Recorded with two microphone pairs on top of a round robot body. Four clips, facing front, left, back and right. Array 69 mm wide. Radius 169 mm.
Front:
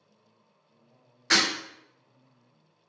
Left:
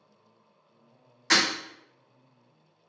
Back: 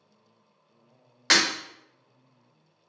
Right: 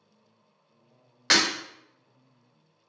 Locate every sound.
1.3 s breaking glass: 140° right, 1.1 m